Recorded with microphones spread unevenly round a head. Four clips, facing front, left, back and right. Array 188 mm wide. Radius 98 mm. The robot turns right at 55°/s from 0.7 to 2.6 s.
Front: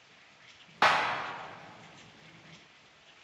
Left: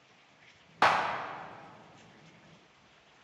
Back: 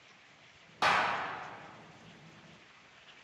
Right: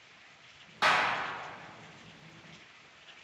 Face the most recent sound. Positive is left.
turn(degrees=155)